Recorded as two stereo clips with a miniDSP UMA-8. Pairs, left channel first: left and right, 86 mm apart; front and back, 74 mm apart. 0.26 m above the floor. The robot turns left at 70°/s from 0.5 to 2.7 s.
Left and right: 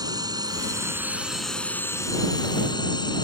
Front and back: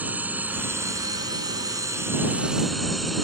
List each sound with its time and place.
0.0 s a drone: 115° right; by 3.2 s 90° left